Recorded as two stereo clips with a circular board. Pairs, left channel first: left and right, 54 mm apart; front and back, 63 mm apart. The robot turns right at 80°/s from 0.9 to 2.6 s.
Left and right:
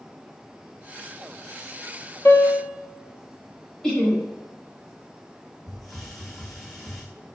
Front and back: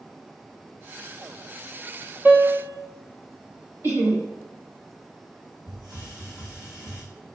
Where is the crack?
No crack in this recording.